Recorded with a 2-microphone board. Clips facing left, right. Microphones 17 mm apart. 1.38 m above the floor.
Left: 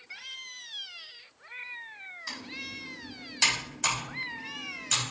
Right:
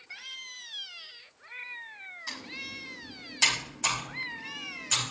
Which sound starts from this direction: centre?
Typing on a keyboard, at 2.3 s.